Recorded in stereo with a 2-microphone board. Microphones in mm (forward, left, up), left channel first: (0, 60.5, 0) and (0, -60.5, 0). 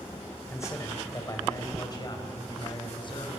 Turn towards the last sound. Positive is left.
turn(degrees=40)  # may be behind; listen again after turning